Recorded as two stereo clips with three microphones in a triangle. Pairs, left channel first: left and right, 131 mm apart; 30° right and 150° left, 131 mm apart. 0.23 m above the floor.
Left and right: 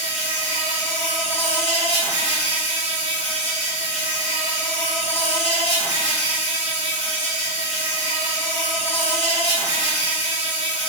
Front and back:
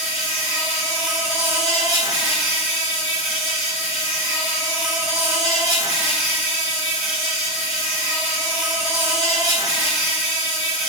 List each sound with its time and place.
0.0 s an insect: 65° left, 1.6 m